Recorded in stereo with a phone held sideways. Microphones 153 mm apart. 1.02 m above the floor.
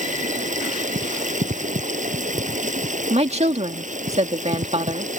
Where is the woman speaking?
45° right (ahead or behind).